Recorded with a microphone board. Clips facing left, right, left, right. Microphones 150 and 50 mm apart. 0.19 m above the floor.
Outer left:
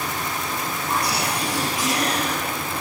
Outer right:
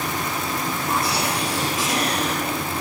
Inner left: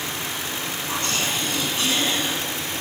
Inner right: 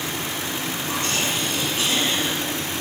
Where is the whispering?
25° right (ahead or behind), 4.5 m.